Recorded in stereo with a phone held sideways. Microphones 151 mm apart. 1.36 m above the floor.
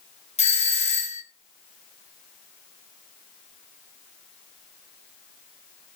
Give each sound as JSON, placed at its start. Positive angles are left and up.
{"t": 0.4, "sound": "a doorbell", "side_deg": 45, "distance_m": 0.6}